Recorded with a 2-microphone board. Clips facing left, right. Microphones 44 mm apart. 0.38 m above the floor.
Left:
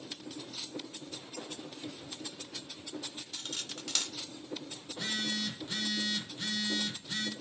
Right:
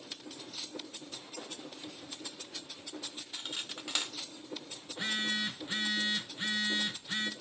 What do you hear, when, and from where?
3.3 s cutlery clinking: 15° right (ahead or behind), 0.5 m
4.8 s a phone buzzing: 25° right (ahead or behind), 1.1 m